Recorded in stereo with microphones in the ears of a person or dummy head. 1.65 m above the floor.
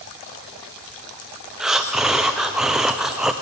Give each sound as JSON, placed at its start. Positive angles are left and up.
{"t": 1.6, "sound": "breathing", "side_deg": -5, "distance_m": 0.6}